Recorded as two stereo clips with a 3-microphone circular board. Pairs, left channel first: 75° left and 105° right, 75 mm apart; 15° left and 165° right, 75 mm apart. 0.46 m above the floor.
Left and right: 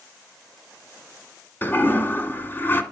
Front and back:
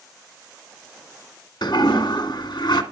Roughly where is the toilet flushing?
Ahead.